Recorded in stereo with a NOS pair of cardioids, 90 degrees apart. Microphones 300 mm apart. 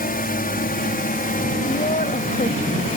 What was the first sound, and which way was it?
A drone, 35° left.